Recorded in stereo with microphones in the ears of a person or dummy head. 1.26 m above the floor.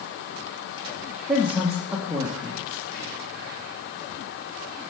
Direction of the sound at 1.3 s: 5° right (ahead or behind).